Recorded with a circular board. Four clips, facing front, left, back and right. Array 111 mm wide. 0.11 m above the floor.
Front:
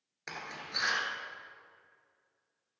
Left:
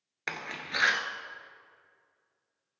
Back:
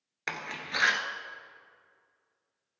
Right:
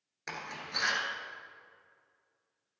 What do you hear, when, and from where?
0.3 s a door slam: 135° left, 1.1 m